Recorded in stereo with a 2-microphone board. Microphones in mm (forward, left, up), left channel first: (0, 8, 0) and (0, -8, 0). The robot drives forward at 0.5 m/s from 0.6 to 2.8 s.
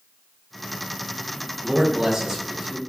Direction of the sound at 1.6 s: 60° right (ahead or behind).